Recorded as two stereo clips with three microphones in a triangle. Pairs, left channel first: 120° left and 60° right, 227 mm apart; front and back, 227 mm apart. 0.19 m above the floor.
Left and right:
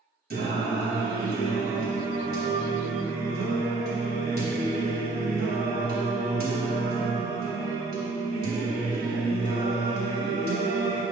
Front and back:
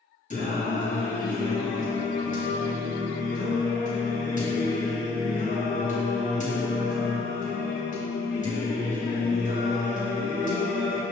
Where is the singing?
40° right, 2.5 m.